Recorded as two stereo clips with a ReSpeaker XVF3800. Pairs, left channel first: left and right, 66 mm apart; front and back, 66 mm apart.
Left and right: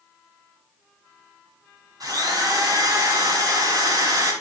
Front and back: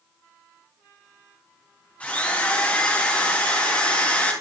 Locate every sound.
2.0 s a drill: 70° right, 5.5 m